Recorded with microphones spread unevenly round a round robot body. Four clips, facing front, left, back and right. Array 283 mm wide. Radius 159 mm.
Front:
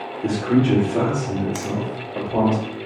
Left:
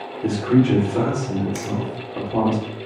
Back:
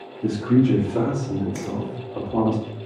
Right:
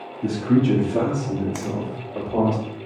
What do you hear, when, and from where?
0.2 s a man speaking: 115° right, 1.5 m; by 2.5 s 90° right, 3.5 m
1.6 s a finger snap: 40° right, 1.2 m